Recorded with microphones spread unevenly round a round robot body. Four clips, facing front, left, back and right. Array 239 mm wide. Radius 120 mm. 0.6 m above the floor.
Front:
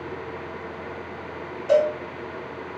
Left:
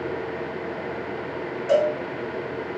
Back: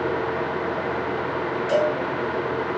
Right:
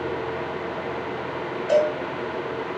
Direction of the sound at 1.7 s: 80° left.